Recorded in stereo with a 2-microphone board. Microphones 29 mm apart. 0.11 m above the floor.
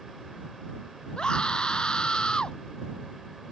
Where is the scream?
35° left (ahead or behind).